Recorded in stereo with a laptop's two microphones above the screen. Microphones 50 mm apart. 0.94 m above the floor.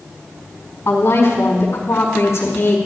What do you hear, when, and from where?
0.8 s a woman speaking: 65° left (ahead or behind), 4 m